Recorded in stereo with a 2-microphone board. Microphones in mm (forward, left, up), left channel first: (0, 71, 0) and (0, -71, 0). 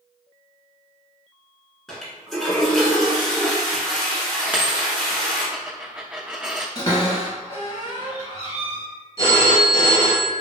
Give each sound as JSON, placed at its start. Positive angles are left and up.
{"t": 1.9, "sound": "a toilet flushing", "side_deg": 0, "distance_m": 1.0}
{"t": 4.5, "sound": "a dropped coin", "side_deg": -10, "distance_m": 0.6}
{"t": 6.8, "sound": "a cupboard door", "side_deg": 30, "distance_m": 1.5}
{"t": 9.2, "sound": "a phone ringing", "side_deg": 30, "distance_m": 1.5}